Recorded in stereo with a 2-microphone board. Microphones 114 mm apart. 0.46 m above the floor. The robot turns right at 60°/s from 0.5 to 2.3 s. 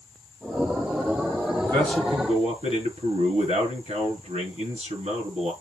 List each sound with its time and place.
1.6 s a man speaking: 150° right, 6.5 m; by 5.5 s 110° right, 6.5 m